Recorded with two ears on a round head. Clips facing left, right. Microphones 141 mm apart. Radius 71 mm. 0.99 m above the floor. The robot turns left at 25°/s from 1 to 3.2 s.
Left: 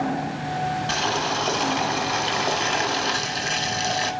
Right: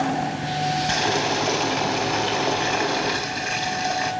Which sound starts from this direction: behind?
Boiling, at 0.9 s.